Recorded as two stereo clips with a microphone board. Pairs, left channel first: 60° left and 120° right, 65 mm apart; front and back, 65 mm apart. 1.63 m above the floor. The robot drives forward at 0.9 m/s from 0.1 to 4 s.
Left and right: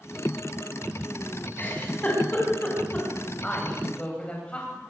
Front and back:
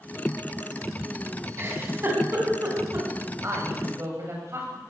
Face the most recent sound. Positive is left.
turn(degrees=135)